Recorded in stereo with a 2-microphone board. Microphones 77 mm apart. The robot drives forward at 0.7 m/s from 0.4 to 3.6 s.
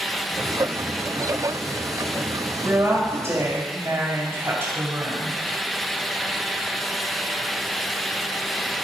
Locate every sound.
2.6 s a woman speaking: 40° right (ahead or behind), 1.8 m; by 5.4 s 30° right (ahead or behind), 2.5 m